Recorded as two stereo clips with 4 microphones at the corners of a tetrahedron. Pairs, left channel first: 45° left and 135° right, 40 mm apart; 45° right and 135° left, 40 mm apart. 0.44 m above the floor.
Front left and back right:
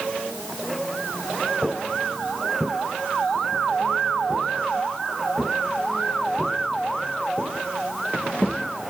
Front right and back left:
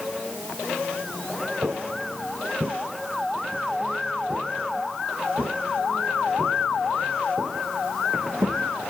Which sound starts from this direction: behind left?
Footsteps, at 1.6 s.